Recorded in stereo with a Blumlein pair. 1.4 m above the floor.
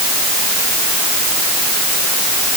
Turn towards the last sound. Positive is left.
No sound to turn to.